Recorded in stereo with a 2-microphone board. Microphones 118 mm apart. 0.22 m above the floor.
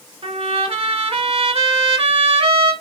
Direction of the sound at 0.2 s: 55° right (ahead or behind).